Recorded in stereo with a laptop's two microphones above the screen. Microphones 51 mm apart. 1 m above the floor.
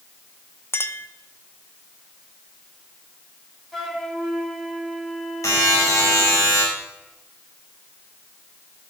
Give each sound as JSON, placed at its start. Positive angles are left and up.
{"t": 0.7, "sound": "a clink", "side_deg": 50, "distance_m": 0.9}
{"t": 3.7, "sound": "a flute", "side_deg": 10, "distance_m": 4.0}
{"t": 5.4, "sound": "a buzzer", "side_deg": 85, "distance_m": 6.5}